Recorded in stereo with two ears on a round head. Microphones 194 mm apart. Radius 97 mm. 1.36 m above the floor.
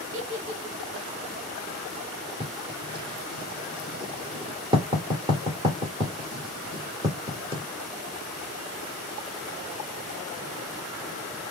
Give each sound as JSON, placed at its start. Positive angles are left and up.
{"t": 0.1, "sound": "a giggle", "side_deg": -55, "distance_m": 0.8}
{"t": 2.4, "sound": "writing", "side_deg": -20, "distance_m": 1.1}